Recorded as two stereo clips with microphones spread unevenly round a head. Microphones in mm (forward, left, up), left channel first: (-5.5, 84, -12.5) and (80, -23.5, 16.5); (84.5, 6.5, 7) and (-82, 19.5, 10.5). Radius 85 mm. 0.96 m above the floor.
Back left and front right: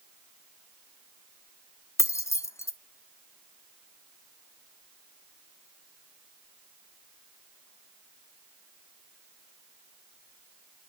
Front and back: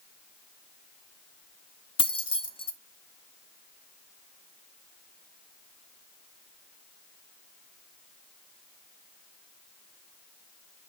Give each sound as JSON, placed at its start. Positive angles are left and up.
{"t": 2.0, "sound": "keys jangling", "azimuth_deg": 55, "distance_m": 1.3}